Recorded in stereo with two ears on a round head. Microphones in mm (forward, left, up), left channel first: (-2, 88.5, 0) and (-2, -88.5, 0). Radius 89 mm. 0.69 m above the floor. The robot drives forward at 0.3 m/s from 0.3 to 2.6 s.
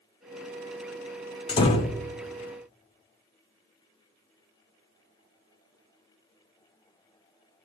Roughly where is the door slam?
Left.